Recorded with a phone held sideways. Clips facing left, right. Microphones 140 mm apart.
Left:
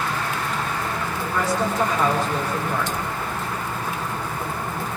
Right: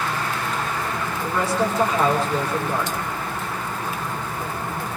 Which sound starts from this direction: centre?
A woman speaking, at 1.2 s.